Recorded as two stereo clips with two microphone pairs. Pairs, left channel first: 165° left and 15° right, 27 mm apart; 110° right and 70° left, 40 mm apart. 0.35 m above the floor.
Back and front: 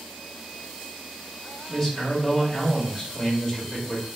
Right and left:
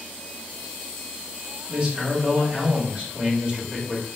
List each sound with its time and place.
1.7 s a man speaking: 95° left, 0.9 m